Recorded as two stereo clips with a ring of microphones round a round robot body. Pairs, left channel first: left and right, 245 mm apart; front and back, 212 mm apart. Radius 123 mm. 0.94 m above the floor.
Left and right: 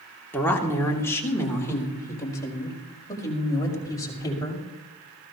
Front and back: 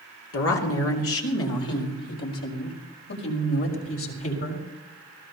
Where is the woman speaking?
10° left, 2.5 m; by 4.7 s 15° left, 5.5 m.